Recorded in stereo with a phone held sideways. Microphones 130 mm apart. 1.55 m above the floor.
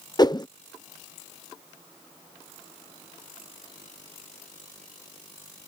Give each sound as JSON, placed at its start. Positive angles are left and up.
{"t": 0.2, "sound": "a whoosh", "side_deg": 30}